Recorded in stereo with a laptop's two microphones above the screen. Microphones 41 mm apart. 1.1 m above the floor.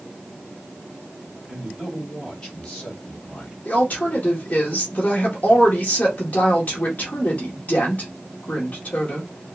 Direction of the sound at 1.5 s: Centre (ahead or behind).